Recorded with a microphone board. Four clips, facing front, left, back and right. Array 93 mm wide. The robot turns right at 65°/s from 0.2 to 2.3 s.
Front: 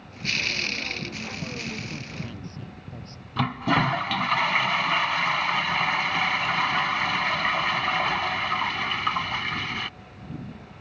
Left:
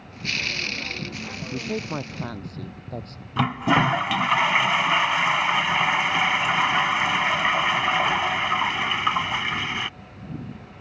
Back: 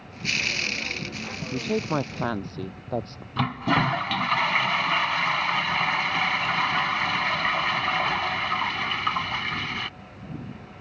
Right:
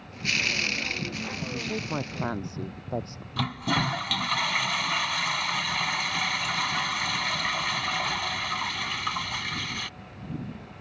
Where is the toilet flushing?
90° left.